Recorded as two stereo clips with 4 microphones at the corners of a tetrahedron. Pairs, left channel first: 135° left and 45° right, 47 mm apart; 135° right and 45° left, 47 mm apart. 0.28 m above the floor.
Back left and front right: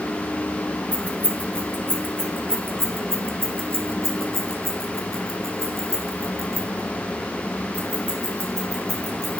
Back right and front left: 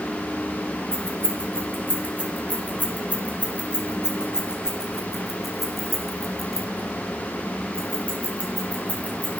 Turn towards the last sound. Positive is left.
turn(degrees=-75)